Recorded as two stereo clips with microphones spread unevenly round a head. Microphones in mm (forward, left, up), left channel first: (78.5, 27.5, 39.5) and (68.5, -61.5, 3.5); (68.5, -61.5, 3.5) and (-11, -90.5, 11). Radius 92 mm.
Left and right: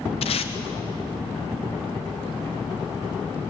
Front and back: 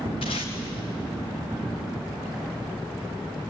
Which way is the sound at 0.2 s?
70° left.